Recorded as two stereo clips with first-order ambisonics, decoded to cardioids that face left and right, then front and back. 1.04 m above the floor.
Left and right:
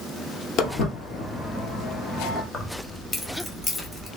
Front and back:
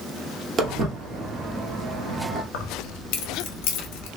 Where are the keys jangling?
15° left, 1.0 m.